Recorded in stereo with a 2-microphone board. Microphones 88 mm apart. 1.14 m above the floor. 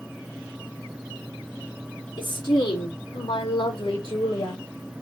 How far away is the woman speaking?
About 3.5 m.